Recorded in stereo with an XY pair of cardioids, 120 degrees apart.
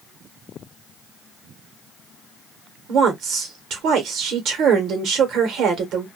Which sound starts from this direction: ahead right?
A woman speaking, at 2.9 s.